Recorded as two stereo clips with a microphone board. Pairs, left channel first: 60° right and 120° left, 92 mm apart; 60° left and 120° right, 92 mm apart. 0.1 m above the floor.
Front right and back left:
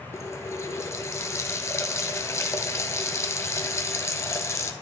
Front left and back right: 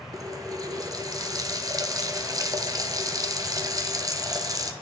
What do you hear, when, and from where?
0.1 s a running tap: 100° right, 1.1 m